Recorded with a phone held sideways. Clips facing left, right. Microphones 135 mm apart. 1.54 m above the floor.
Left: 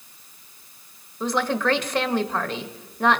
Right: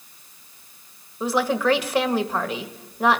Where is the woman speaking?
5° right (ahead or behind), 1.5 m.